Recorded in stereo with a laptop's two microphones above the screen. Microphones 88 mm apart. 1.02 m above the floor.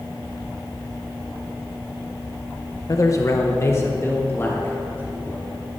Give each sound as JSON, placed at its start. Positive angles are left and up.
{"t": 2.9, "sound": "a man speaking", "side_deg": 40, "distance_m": 0.6}